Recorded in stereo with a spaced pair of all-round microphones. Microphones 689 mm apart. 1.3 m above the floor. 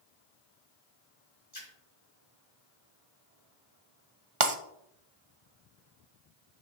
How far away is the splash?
About 3.5 m.